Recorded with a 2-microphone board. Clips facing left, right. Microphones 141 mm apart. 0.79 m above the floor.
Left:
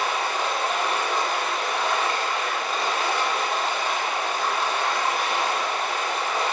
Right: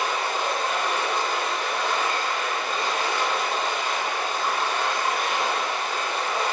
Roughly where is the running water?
Left.